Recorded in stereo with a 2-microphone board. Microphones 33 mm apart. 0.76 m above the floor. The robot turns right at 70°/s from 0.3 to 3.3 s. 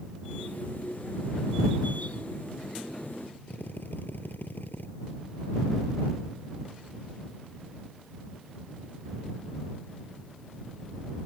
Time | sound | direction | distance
3.5 | a drill | 85° left | ?